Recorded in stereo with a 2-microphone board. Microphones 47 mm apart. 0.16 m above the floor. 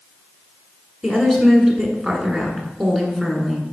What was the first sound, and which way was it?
A woman speaking, centre (ahead or behind).